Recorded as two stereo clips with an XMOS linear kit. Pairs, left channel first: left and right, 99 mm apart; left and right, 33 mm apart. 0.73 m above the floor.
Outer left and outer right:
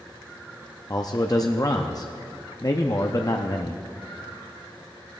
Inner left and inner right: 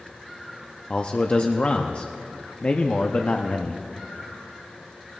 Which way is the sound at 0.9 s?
40° left (ahead or behind).